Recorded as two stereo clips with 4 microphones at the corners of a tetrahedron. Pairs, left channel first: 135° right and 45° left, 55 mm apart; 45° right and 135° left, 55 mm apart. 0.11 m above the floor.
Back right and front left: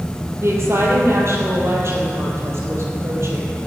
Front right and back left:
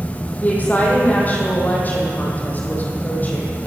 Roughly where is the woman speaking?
Ahead.